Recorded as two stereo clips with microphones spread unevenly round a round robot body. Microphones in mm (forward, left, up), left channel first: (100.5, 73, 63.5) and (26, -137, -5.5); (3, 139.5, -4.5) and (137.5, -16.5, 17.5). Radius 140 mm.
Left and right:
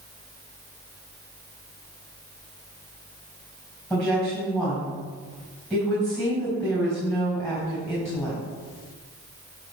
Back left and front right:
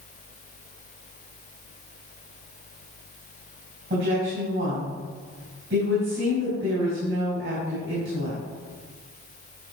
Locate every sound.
3.9 s a woman speaking: 20° right, 4 m